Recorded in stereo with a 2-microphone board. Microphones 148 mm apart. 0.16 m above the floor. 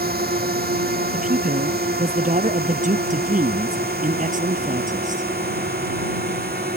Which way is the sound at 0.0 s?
80° right.